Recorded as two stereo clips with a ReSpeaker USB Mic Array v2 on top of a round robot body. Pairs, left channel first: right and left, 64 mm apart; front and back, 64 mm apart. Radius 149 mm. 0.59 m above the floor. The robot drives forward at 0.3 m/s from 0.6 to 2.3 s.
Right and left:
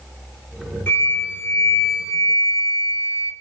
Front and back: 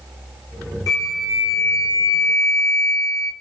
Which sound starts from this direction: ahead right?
A flute, at 0.9 s.